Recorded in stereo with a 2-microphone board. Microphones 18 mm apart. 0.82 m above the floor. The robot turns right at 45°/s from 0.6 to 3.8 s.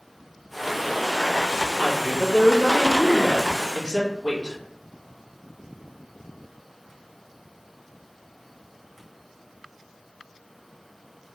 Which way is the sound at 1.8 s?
175° left.